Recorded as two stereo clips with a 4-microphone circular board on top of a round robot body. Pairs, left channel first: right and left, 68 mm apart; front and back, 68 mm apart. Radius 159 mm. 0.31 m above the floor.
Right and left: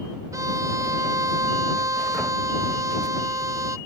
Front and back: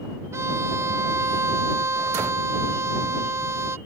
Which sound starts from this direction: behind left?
A violin, at 0.3 s.